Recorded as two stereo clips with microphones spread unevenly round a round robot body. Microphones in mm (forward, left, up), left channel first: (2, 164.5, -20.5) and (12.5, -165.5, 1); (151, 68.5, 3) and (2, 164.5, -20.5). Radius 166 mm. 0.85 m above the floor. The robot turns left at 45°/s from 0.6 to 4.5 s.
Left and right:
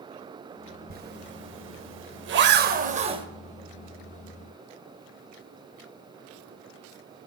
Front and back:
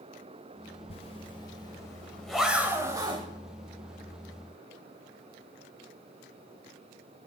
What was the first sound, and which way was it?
A zipper, 45° right.